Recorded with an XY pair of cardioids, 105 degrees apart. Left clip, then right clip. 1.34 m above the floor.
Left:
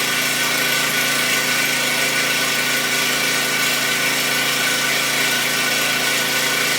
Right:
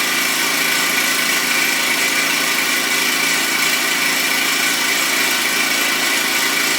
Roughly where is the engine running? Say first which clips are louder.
Right 2 dB; ahead right.